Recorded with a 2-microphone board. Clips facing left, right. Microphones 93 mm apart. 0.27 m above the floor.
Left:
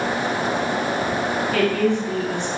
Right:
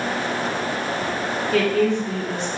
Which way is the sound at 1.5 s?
15° left (ahead or behind).